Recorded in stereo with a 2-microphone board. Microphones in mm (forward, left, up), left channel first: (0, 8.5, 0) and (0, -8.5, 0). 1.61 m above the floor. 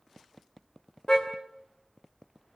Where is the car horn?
40° left (ahead or behind), 2.5 m.